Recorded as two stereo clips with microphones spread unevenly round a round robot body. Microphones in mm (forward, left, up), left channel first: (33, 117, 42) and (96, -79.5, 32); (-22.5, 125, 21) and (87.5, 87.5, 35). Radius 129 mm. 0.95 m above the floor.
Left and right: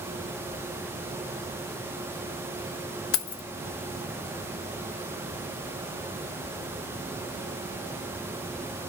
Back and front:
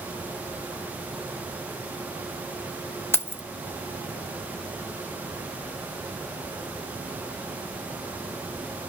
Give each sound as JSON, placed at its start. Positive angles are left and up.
{"t": 3.1, "sound": "keys jangling", "azimuth_deg": 90, "distance_m": 0.5}